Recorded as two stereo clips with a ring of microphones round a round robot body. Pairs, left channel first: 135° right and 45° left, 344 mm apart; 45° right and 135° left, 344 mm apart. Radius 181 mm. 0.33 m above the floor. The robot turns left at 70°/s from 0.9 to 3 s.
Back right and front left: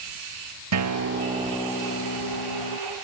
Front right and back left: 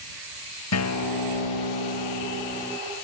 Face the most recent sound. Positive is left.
turn(degrees=-145)